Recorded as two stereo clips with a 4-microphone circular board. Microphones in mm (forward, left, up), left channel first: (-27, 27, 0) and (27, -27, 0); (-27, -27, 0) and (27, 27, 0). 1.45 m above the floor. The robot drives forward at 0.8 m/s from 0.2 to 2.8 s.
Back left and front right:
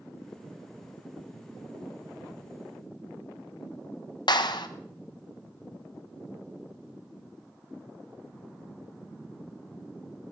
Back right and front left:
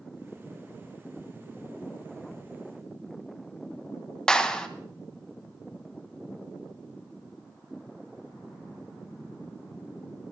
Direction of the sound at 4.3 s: 145° left.